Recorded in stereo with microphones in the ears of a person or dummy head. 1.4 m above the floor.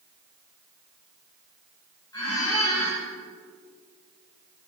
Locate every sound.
2.1 s a squeak: 20° left (ahead or behind), 3 m